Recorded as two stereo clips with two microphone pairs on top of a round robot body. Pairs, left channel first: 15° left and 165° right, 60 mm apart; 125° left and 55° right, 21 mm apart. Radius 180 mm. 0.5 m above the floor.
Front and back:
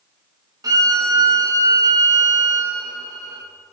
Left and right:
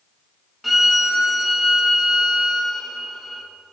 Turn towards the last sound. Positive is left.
turn(degrees=-150)